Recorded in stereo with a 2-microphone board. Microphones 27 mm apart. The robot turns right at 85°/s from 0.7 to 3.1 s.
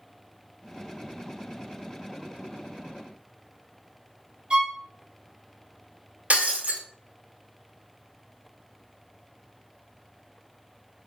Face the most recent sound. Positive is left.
turn(degrees=-60)  # may be behind; listen again after turning